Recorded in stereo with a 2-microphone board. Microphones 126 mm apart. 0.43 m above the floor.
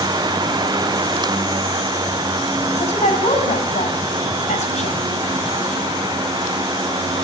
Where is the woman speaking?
70° left (ahead or behind), 3 m.